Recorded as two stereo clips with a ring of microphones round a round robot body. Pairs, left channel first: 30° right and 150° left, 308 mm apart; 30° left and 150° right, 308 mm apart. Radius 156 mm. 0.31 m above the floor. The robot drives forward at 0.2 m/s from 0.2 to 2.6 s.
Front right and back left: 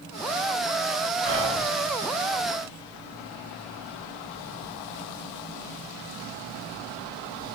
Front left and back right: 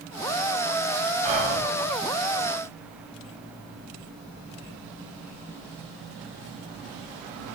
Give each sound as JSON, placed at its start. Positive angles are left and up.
{"t": 1.2, "sound": "whispering", "azimuth_deg": -160, "distance_m": 3.0}